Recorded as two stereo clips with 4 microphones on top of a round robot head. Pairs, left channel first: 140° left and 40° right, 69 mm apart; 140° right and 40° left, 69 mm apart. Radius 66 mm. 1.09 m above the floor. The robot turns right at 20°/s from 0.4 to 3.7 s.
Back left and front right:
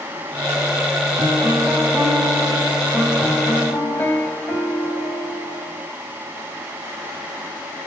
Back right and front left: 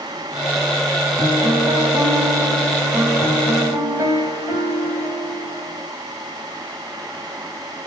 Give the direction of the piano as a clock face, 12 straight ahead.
11 o'clock.